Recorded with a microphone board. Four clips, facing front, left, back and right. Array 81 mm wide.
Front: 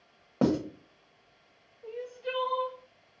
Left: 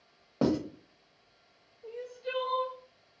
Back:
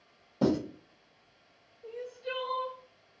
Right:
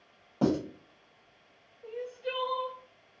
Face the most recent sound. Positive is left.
turn(degrees=-45)